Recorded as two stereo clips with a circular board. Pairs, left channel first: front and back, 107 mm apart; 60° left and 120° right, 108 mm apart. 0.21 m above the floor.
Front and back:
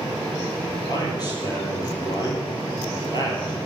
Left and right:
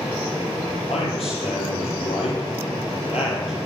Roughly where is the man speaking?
Ahead left.